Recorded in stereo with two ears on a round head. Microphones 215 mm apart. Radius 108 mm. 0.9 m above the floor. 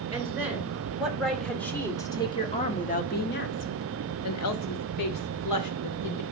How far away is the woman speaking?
About 3 m.